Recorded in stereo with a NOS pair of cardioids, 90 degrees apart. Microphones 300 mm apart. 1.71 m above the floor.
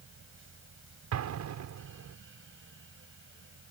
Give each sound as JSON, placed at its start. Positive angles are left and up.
{"t": 0.0, "sound": "a fan", "azimuth_deg": -40}
{"t": 1.1, "sound": "an explosion", "azimuth_deg": -65}